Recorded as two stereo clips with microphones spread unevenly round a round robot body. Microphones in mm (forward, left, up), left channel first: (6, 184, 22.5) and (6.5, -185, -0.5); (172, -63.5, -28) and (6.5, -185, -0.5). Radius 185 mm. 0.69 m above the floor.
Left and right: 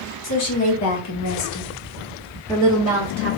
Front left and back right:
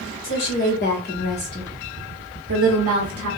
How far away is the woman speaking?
About 1.8 m.